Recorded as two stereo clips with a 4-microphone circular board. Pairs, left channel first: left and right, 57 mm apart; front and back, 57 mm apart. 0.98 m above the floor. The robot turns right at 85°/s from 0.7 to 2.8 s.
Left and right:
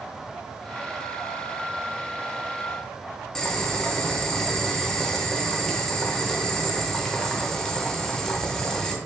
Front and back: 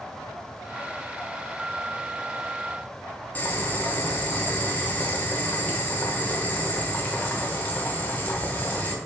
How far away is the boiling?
About 0.7 m.